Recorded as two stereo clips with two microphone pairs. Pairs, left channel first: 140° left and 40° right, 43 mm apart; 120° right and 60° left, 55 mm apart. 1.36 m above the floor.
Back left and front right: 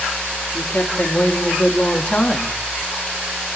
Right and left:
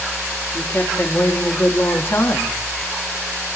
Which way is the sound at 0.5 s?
175° right.